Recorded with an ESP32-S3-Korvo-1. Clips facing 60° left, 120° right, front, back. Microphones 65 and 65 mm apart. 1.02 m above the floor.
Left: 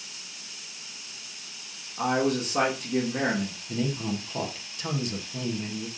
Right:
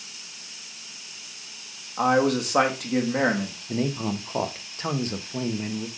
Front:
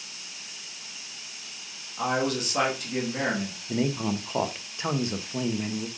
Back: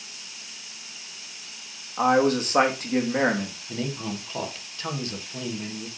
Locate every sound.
2.0 s a man speaking: 135° right, 1.8 m
3.7 s a man speaking: 70° right, 1.0 m